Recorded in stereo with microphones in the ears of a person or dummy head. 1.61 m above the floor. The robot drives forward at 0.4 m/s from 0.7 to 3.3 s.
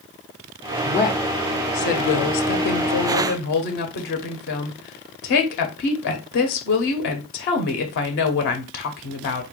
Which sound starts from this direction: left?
A woman speaking, at 0.8 s.